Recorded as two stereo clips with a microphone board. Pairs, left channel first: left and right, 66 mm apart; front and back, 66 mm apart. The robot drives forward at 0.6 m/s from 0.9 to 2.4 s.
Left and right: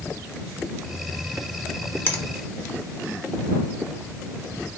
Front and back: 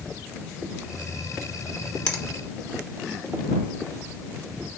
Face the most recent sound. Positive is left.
turn(degrees=80)